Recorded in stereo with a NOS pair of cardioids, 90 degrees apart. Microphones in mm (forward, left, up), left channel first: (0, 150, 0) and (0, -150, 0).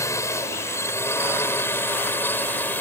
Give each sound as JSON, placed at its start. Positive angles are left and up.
{"t": 0.0, "sound": "a drone", "azimuth_deg": 10}